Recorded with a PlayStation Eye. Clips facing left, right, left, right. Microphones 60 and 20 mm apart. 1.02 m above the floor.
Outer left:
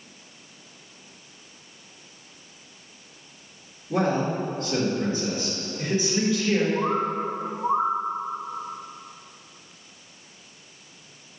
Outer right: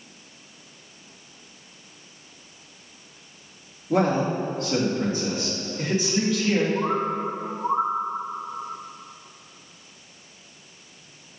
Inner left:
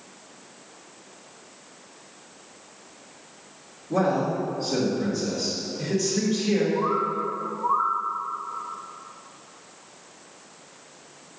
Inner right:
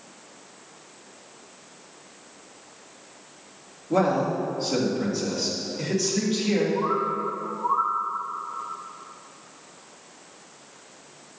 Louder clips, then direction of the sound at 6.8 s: Even, even; 10° left (ahead or behind).